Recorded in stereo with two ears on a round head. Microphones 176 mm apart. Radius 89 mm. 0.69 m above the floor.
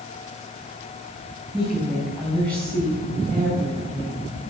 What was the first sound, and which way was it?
A woman speaking, 5° left (ahead or behind).